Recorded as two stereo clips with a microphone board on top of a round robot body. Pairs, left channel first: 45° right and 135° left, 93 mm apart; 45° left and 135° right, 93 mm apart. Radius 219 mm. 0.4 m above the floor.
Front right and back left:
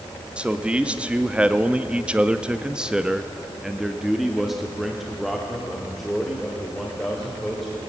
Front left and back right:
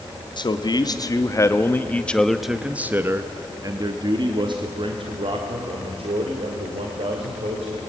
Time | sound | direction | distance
0.4 | a man speaking | 60° left | 1.7 m